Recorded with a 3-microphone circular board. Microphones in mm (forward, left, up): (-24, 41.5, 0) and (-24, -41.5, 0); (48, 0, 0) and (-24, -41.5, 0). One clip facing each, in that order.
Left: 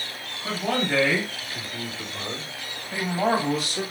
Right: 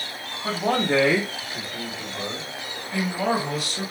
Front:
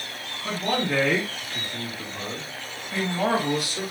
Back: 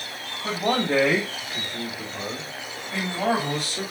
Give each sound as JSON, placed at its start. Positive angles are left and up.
{"t": 0.4, "sound": "a man speaking", "azimuth_deg": -130, "distance_m": 1.7}